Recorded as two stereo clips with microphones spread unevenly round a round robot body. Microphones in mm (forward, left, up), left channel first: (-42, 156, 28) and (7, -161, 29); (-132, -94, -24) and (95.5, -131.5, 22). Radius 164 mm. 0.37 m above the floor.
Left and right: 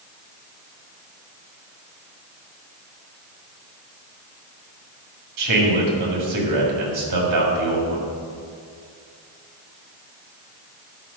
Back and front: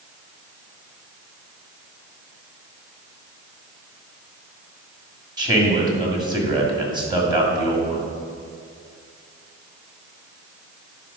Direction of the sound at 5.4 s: 85° right.